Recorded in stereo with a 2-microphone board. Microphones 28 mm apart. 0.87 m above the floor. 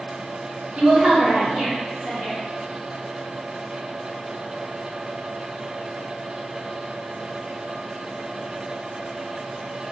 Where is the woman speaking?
50° right (ahead or behind), 0.9 m; by 2.4 s 40° right (ahead or behind), 1.7 m.